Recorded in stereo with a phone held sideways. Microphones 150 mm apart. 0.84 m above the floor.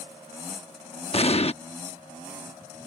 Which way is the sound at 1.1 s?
45° left (ahead or behind).